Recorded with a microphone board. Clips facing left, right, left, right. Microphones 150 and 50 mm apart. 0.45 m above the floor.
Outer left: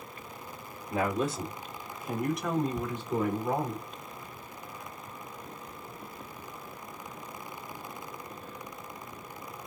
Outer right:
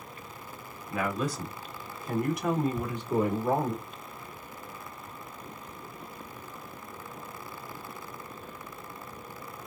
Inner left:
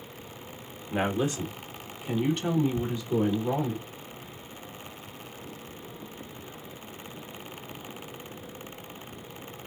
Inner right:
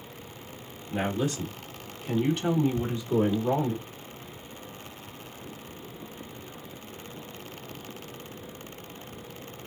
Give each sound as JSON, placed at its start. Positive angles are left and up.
{"t": 0.9, "sound": "a woman speaking", "side_deg": 35, "distance_m": 1.4}
{"t": 2.8, "sound": "ticking", "side_deg": 25, "distance_m": 1.3}